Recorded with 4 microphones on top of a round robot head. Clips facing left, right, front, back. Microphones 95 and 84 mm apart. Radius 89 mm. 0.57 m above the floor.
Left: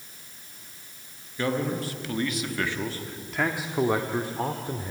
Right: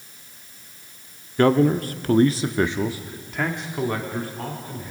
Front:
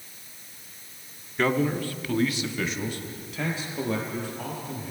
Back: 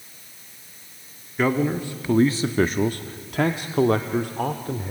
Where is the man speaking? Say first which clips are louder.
Right 10 dB, back 2 dB; 95° right, 1.2 m; by 4.9 s 155° left, 1.9 m.